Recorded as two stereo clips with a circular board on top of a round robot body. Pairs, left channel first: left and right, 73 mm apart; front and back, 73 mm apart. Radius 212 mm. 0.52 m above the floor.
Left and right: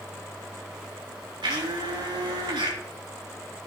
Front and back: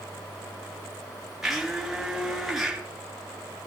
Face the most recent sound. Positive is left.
turn(degrees=-95)